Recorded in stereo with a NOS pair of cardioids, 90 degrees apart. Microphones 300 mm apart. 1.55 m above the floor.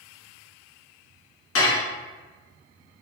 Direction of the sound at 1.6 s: 55° left.